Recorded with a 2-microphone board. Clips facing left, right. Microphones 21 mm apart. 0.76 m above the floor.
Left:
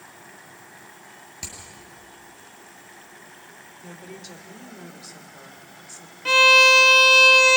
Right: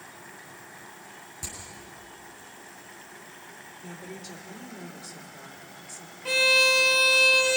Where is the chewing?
No chewing in this recording.